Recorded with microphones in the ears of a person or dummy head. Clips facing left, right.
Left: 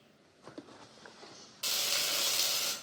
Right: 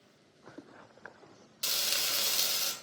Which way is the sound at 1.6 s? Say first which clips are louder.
Even; 30° right (ahead or behind).